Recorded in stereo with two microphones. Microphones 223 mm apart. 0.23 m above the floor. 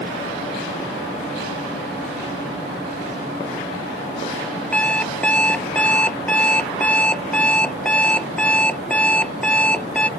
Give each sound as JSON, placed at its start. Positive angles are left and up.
{"t": 4.7, "sound": "an alarm clock", "side_deg": 5}